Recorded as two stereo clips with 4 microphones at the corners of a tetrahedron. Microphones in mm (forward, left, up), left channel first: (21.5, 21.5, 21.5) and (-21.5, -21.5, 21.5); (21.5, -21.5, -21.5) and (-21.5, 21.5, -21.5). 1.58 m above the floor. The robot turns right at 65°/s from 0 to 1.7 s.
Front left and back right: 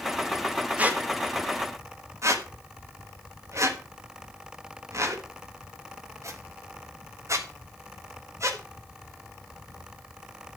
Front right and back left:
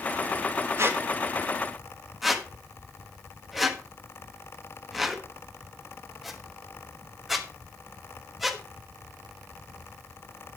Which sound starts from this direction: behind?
A squeak, at 0.8 s.